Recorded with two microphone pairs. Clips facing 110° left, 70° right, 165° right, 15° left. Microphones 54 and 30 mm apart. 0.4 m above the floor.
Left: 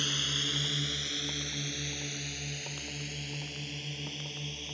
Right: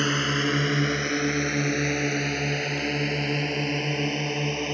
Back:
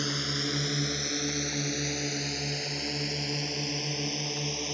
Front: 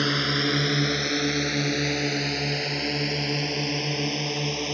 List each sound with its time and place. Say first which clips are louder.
0.0 s a drone: right 11 dB, front 8 dB; 35° right; by 4.8 s 45° right